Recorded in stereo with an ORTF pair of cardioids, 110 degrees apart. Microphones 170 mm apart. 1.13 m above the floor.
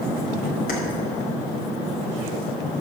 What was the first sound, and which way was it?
Keys jangling, 60° left.